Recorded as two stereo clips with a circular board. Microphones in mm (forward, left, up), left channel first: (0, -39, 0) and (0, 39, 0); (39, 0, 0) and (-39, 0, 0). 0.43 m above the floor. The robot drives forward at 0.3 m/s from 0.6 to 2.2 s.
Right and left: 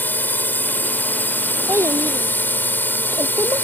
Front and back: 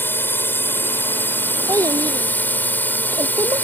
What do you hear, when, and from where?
0.0 s a drone: 40° right; by 3.6 s 45° right
1.7 s a child speaking: 140° left